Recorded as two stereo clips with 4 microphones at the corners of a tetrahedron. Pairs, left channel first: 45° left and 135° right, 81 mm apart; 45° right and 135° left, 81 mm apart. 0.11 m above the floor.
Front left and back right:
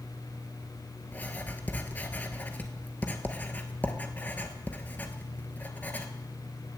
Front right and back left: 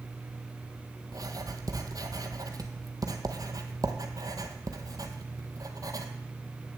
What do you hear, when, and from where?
1.1 s writing: 110° left, 1.1 m